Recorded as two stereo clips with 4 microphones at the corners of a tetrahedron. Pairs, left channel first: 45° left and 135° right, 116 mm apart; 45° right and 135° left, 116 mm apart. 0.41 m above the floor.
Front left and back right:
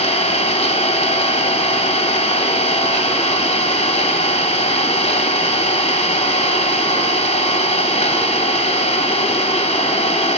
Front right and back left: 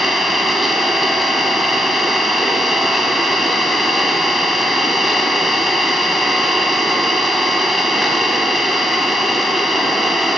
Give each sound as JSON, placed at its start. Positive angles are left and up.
{"t": 0.0, "sound": "an engine running", "azimuth_deg": 45, "distance_m": 1.7}